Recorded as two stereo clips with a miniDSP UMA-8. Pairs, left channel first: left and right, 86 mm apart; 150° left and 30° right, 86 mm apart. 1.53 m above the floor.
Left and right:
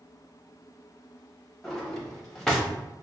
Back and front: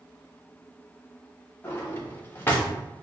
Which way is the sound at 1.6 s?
175° left.